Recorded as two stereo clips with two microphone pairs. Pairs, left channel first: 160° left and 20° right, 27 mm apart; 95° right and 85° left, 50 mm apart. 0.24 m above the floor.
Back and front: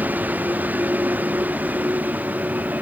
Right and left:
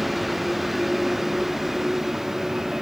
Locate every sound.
0.0 s a vehicle: 5° right; by 2.8 s straight ahead